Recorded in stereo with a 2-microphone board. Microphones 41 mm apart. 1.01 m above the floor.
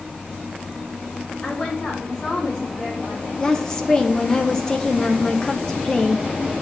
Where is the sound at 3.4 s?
20° left (ahead or behind), 0.7 m.